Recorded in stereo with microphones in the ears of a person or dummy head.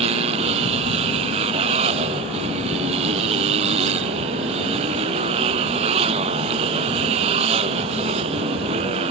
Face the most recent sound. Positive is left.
turn(degrees=-35)  # may be behind; listen again after turning